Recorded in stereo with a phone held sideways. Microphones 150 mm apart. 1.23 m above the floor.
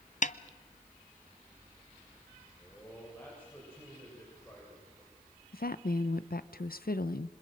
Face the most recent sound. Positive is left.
turn(degrees=75)  # may be behind; listen again after turning